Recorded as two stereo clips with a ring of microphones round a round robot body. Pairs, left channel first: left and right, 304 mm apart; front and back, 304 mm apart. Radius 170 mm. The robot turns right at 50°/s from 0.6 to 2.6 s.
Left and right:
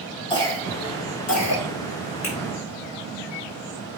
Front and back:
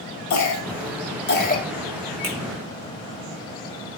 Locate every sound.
0.3 s a cough: 15° left, 1.9 m; by 1.6 s 70° left, 1.9 m
2.2 s a finger snap: 135° left, 5 m; by 2.4 s 140° left, 5 m